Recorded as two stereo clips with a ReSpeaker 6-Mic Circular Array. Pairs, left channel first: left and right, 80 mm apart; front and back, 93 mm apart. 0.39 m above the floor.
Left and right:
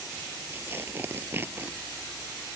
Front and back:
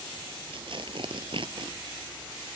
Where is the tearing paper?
150° right.